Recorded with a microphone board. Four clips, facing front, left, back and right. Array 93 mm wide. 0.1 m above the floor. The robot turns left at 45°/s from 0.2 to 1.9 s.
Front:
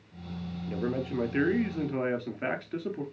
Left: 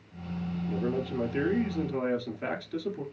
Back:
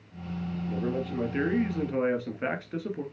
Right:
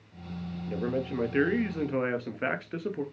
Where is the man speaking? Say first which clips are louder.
Right 1 dB, even; 45° right, 1.3 m; by 3.0 s 100° right, 1.3 m.